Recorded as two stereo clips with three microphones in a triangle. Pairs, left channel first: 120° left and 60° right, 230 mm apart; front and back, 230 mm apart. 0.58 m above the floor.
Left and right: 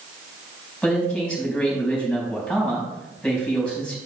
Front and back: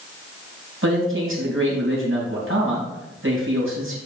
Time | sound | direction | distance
0.8 | a man speaking | 155° right | 3.5 m